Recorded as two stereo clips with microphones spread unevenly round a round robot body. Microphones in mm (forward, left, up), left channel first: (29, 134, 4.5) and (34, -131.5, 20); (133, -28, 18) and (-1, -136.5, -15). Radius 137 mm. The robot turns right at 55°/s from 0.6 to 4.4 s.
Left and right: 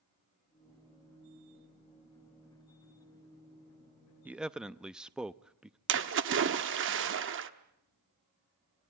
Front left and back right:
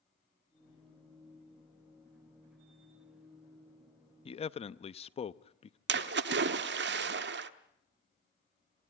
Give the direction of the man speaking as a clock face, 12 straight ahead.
12 o'clock.